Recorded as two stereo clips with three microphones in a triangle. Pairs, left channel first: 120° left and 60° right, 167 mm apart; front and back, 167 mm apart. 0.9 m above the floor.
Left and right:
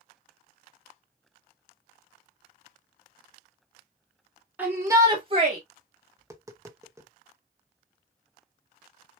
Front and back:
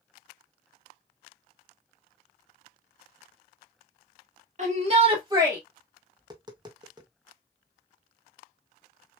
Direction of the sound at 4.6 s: 140° right.